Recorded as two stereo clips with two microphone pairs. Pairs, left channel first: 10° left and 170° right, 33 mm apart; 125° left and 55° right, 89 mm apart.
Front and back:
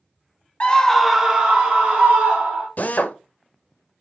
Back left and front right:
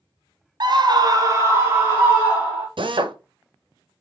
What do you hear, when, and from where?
0.6 s a scream: 40° right, 0.6 m; by 2.7 s 125° right, 1.6 m
2.8 s a drill: 30° right, 0.5 m